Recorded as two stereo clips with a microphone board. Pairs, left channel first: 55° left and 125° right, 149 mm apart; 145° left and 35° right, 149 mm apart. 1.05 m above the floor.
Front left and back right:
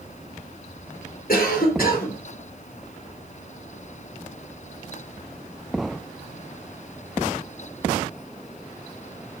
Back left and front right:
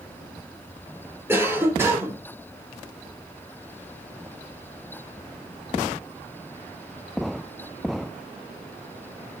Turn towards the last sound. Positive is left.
turn(degrees=40)